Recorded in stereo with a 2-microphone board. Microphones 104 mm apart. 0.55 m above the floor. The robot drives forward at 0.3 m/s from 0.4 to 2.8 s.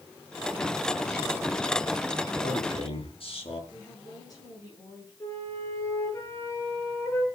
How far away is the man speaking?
About 5.5 m.